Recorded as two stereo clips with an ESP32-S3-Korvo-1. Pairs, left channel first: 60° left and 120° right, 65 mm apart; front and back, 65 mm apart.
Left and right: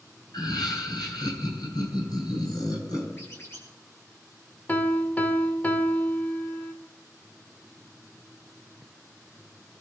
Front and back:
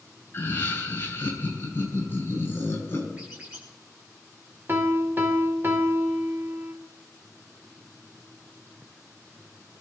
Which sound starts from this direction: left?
A squeak, at 3.2 s.